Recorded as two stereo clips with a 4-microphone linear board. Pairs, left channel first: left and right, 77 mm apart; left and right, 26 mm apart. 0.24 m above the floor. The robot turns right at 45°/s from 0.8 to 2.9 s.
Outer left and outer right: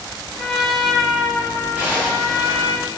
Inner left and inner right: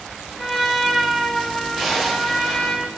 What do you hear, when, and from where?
0.4 s a trumpet: straight ahead, 0.5 m; by 2.8 s 90° left, 0.5 m
1.8 s a zipper: 165° right, 1.6 m; by 2.7 s 120° right, 1.6 m